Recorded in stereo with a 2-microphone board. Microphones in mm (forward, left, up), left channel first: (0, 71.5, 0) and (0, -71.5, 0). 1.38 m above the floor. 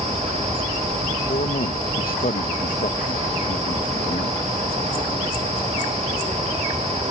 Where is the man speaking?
85° left.